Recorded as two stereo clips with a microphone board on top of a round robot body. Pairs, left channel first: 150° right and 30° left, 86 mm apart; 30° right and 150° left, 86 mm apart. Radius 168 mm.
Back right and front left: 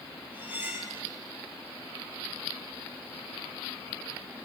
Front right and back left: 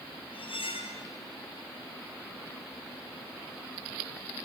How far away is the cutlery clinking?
About 4.5 m.